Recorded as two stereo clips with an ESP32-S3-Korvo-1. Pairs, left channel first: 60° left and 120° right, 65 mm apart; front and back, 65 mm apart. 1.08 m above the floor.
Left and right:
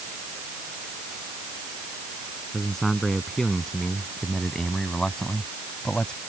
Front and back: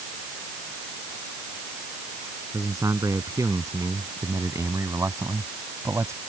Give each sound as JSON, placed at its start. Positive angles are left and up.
{"t": 2.5, "sound": "a man speaking", "azimuth_deg": 145}